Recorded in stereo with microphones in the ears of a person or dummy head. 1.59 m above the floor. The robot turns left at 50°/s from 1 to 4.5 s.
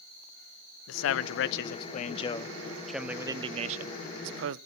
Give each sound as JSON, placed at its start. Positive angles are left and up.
{"t": 0.9, "sound": "a man speaking", "azimuth_deg": 90, "distance_m": 0.6}